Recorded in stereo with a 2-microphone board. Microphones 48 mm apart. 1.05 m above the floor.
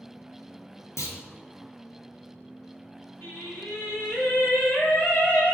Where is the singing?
65° left (ahead or behind), 1.6 m.